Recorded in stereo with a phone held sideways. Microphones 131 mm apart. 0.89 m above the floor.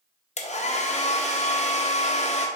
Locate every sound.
0.4 s a hair dryer: 60° left (ahead or behind), 0.6 m